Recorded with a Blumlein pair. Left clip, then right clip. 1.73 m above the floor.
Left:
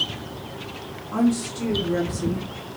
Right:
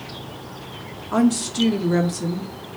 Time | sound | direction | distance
1.1 | a woman speaking | 30° right | 1.0 m